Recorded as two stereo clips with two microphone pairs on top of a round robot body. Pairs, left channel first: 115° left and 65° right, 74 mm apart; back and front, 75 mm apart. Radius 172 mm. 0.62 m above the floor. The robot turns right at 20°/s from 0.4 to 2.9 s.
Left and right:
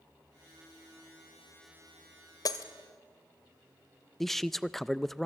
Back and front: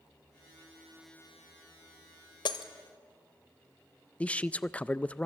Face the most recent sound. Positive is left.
turn(degrees=180)